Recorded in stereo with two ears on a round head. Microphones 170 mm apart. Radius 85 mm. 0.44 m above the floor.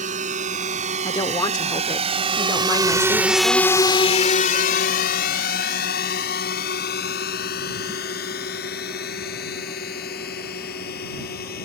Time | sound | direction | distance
0.0 | a drone | 45° right (ahead or behind) | ?
1.1 | a woman speaking | 20° left (ahead or behind) | ?